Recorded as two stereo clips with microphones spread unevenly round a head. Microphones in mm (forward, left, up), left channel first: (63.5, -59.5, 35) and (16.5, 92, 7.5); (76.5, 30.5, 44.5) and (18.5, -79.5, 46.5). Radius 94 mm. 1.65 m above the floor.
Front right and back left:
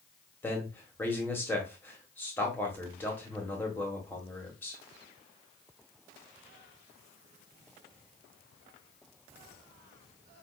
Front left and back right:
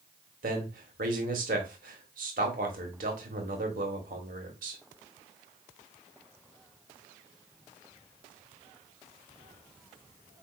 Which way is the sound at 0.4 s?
150° right.